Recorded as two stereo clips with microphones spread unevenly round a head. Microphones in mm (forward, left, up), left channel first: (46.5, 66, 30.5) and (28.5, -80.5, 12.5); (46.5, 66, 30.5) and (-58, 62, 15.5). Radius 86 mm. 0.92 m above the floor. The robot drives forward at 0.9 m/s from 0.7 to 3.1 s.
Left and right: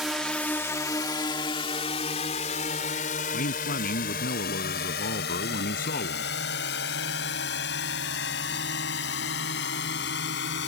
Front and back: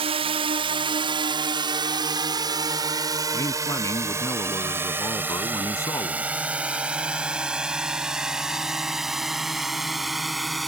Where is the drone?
175° left; by 10.7 s 90° left.